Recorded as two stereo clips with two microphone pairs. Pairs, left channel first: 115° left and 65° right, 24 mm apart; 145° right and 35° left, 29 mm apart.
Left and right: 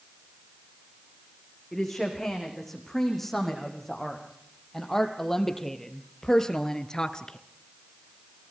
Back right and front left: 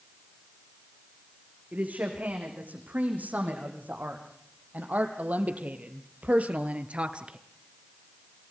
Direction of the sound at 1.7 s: 30° left.